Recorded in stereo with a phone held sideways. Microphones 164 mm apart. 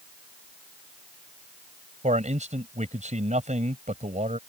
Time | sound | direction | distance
2.0 | a man speaking | 50° right (ahead or behind) | ?